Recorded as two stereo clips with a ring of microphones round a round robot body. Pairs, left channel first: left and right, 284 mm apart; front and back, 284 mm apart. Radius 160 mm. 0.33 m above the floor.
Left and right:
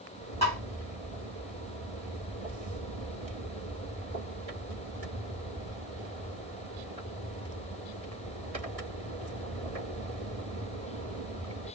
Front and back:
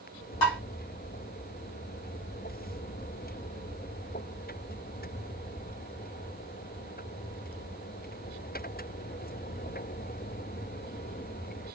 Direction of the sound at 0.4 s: 20° left.